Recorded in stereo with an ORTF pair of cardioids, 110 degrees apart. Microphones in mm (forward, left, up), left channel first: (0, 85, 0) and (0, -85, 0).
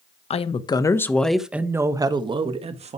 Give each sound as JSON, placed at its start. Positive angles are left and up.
{"t": 0.3, "sound": "a woman speaking", "azimuth_deg": 40, "distance_m": 1.6}